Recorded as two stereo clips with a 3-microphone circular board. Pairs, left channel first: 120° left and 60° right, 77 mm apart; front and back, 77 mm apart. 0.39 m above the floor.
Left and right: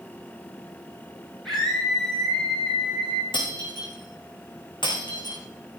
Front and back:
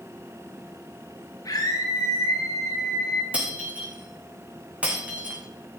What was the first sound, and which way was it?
A scream, 35° left.